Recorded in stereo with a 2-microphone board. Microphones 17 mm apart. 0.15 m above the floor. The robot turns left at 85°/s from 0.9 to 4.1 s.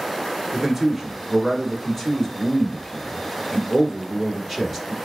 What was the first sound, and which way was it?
A man speaking, 15° right (ahead or behind).